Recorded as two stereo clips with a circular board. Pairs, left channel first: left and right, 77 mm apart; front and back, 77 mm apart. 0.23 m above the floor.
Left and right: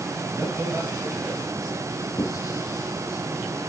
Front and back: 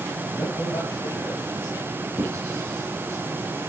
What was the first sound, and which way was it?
A man speaking, 35° right.